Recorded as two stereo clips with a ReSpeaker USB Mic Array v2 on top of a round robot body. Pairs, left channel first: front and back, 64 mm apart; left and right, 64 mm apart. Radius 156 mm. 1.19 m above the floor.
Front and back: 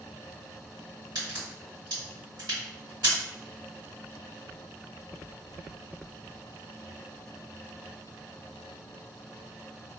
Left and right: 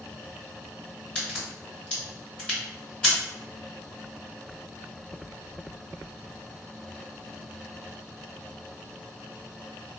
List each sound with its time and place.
1.1 s a crack: 160° left, 1.7 m